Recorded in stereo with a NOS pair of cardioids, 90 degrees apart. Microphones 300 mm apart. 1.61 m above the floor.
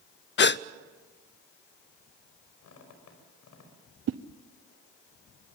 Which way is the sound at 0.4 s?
40° left.